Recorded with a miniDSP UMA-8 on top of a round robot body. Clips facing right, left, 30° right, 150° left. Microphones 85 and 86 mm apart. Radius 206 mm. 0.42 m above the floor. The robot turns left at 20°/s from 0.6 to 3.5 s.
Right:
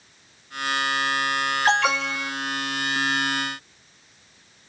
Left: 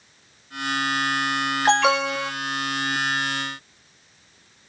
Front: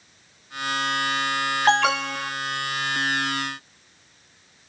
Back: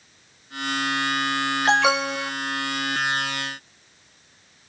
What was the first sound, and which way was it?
An alarm, 15° left.